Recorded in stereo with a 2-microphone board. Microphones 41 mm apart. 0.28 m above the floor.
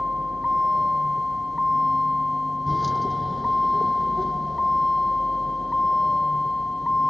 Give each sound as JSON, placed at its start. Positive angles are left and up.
{"t": 0.0, "sound": "a vehicle", "side_deg": -15}